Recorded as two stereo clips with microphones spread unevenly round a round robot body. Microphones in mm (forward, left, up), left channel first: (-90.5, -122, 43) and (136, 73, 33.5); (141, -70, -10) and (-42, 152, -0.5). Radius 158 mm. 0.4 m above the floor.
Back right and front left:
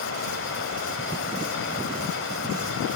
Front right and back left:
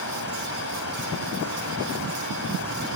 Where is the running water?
95° right, 1.5 m.